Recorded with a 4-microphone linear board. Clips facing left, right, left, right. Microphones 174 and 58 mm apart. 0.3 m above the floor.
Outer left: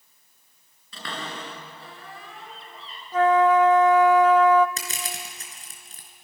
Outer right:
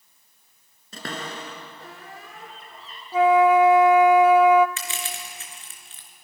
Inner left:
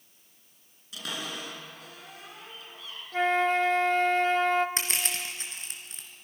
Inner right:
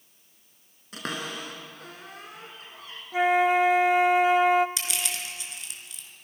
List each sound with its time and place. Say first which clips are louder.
0.9 s a cupboard door: outer right 2 dB, inner right 3 dB; 45° right (ahead or behind), 3.5 m
3.1 s a flute: outer right 2 dB, inner right 4 dB; 10° right (ahead or behind), 0.8 m
4.8 s crushing: outer right 1 dB, inner left 1 dB; 40° left (ahead or behind), 3.5 m